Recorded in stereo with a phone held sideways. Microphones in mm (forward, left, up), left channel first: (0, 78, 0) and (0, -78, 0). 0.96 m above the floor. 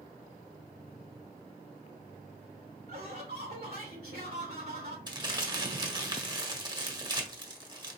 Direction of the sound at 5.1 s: 30° right (ahead or behind).